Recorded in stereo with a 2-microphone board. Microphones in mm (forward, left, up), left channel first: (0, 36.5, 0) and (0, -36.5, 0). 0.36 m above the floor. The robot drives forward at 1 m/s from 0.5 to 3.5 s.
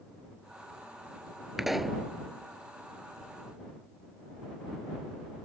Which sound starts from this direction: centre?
A pop, at 1.6 s.